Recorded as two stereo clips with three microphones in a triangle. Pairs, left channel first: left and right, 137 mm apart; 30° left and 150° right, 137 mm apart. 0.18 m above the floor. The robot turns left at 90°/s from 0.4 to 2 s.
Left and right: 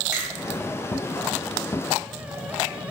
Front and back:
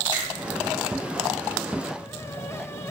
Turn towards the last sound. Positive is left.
turn(degrees=-155)